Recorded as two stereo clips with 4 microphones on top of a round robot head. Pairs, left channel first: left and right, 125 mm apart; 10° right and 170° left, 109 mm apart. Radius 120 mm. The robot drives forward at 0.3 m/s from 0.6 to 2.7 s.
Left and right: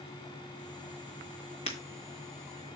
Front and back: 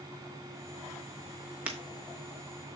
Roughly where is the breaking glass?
Left.